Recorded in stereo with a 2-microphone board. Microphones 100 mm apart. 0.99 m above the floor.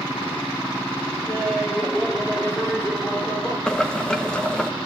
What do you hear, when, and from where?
1.3 s laughter: centre (ahead or behind), 2.5 m; by 3.6 s 25° left (ahead or behind), 3 m
3.7 s boiling: 10° left (ahead or behind), 1.3 m